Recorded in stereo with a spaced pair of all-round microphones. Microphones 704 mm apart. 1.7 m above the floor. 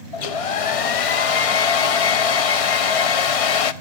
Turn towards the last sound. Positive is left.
turn(degrees=55)  # may be behind; listen again after turning